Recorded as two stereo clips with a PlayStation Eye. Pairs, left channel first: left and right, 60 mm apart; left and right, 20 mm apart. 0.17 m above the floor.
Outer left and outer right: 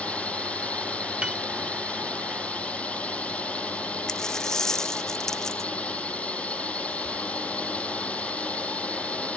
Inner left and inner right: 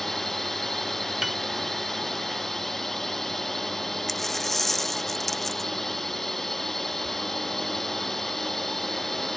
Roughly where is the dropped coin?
Centre.